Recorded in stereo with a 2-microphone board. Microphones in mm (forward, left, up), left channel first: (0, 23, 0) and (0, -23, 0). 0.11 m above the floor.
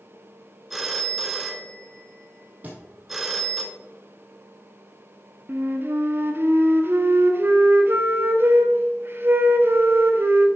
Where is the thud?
35° right (ahead or behind), 2 m.